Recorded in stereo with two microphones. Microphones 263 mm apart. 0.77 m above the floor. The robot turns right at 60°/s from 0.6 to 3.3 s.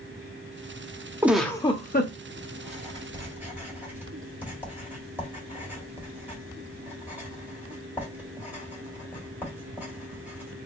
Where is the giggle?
10° right, 0.5 m; by 2.1 s 45° left, 0.5 m.